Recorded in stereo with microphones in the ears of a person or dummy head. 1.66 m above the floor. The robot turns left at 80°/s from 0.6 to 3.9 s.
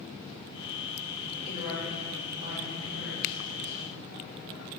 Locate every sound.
1.4 s a woman speaking: 45° left, 2.5 m; by 3.9 s 155° right, 2.5 m